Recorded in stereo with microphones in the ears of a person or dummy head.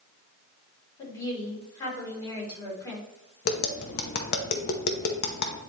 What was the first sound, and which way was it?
A woman speaking, 20° left (ahead or behind).